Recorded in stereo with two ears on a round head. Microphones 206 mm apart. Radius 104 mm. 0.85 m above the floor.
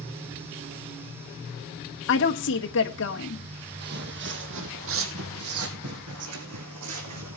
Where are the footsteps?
45° right (ahead or behind), 2 m; by 7.4 s 80° right, 4 m.